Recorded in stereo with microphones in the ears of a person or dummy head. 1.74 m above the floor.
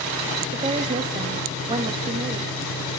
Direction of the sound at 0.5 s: 25° right (ahead or behind).